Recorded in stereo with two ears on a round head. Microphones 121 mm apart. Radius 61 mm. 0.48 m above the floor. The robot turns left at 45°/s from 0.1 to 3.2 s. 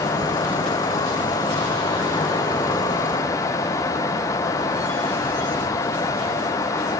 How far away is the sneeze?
No sneeze in this recording.